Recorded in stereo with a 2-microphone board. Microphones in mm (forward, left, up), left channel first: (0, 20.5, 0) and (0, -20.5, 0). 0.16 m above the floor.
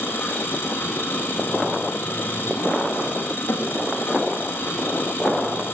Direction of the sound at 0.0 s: 65° left (ahead or behind).